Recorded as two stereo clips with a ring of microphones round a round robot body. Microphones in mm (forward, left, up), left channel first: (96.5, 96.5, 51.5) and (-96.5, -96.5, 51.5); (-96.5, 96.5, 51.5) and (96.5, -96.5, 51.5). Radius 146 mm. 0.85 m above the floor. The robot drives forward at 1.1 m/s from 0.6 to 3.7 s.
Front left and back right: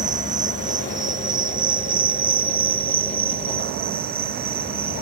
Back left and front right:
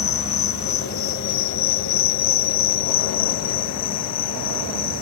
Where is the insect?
160° left; by 5.0 s 165° left.